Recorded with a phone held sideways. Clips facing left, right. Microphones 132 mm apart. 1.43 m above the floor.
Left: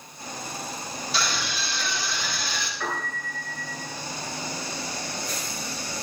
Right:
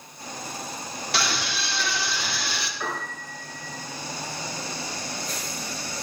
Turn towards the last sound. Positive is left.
turn(degrees=-15)  # may be behind; listen again after turning